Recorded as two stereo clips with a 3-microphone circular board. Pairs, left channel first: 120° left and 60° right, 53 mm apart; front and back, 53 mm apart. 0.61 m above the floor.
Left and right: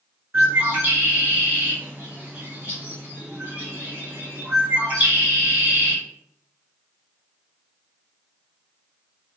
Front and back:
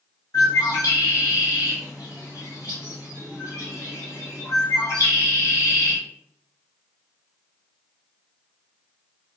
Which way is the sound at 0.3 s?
5° right.